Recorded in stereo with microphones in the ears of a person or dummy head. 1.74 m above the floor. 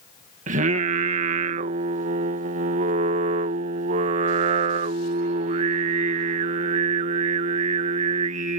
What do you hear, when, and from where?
0.5 s singing: 40° right (ahead or behind)